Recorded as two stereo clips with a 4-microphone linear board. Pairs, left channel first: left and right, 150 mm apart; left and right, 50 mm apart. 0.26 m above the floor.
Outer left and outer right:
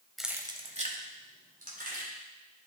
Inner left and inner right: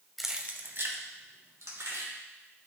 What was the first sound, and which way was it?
Keys jangling, centre (ahead or behind).